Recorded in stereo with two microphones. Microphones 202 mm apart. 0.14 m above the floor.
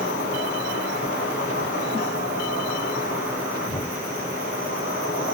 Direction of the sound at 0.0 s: 60° left (ahead or behind).